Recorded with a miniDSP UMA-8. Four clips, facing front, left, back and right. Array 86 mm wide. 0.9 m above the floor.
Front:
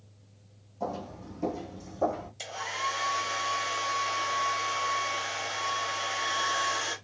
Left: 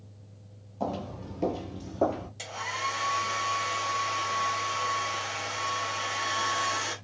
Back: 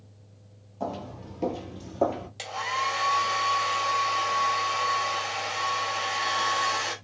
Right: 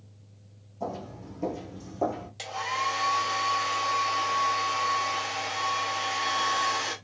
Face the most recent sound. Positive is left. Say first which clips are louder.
# right 6 dB, back 6 dB
turn(degrees=-160)